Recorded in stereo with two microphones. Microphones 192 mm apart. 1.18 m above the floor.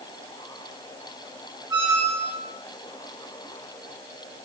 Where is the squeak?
20° right (ahead or behind), 0.8 m.